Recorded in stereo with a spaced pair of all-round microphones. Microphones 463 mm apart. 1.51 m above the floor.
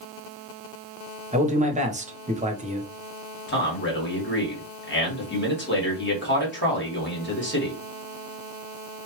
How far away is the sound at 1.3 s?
About 0.9 m.